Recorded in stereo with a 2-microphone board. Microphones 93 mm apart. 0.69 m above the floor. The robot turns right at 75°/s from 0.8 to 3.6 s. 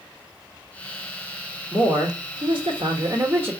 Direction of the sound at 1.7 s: 155° right.